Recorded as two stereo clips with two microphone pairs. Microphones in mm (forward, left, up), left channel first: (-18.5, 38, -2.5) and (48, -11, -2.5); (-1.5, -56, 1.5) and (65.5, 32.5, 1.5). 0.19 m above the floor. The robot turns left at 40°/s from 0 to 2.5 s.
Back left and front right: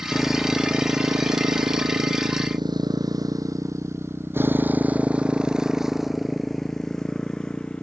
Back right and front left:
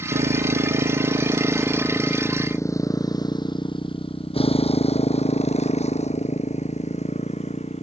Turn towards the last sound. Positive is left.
turn(degrees=-135)